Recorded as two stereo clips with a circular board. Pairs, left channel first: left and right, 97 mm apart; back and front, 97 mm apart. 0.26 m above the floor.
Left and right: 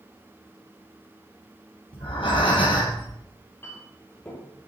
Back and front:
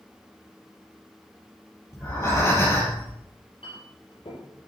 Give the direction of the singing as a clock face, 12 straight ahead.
I don't hear singing.